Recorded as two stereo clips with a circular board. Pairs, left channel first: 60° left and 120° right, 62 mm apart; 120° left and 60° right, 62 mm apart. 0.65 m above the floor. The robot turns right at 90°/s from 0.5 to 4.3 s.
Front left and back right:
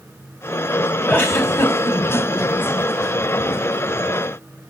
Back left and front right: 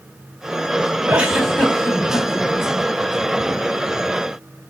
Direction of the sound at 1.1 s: Straight ahead.